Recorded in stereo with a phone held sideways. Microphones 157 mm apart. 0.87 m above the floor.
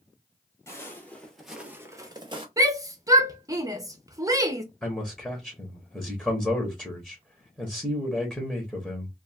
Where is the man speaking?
5° left (ahead or behind), 1.0 m.